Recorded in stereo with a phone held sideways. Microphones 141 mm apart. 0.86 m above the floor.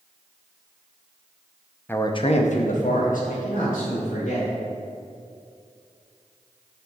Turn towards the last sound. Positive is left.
turn(degrees=75)  # may be behind; listen again after turning